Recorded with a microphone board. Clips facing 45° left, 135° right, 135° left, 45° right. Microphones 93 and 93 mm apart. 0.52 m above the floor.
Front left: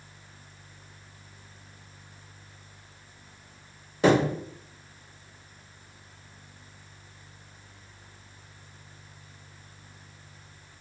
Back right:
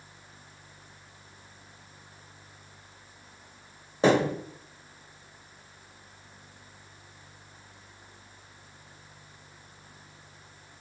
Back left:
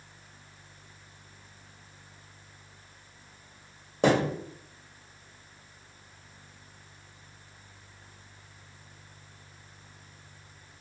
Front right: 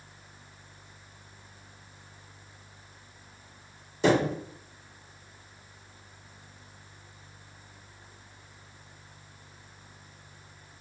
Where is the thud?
165° left, 0.9 m.